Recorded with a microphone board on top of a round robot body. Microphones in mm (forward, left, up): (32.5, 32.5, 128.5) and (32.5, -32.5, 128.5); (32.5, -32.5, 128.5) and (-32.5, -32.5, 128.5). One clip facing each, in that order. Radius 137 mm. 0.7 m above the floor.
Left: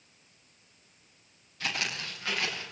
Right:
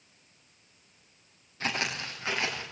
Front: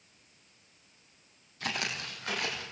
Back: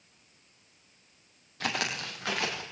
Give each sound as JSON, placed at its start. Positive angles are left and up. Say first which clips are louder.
{"t": 1.6, "sound": "footsteps", "louder": "right 2 dB, back 3 dB", "azimuth_deg": -155, "distance_m": 5.5}